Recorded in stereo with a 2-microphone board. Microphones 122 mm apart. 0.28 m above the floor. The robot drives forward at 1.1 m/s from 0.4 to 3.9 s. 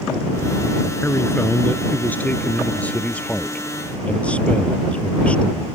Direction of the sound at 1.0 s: 20° left (ahead or behind).